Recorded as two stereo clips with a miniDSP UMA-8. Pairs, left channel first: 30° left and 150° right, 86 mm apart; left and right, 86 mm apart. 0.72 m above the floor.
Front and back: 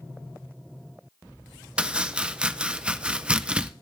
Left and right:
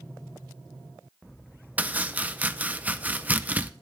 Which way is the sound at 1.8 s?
100° right.